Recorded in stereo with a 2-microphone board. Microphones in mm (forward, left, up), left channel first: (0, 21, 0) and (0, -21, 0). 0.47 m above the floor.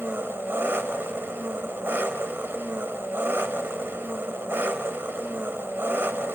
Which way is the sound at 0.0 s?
70° right (ahead or behind).